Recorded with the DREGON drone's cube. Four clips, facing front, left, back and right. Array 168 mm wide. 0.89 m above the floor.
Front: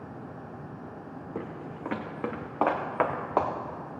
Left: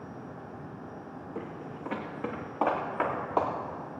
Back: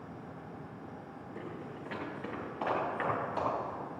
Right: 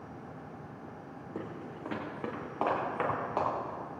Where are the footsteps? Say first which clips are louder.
Left 1 dB, front 5 dB; 15° right, 2.5 m; by 3.5 s 10° left, 3.5 m.